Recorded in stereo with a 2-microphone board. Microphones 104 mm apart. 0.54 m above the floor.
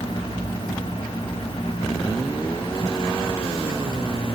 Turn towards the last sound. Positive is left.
No sound to turn to.